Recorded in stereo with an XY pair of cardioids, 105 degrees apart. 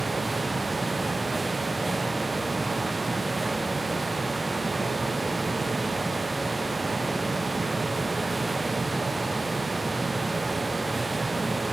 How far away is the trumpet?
I don't hear a trumpet.